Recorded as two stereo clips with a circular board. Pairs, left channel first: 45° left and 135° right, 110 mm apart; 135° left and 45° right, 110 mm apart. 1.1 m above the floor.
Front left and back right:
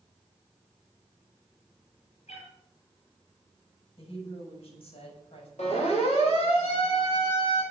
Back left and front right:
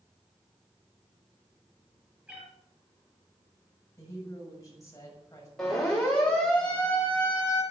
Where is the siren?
50° left, 6.5 m; by 7.6 s 60° left, 6.5 m.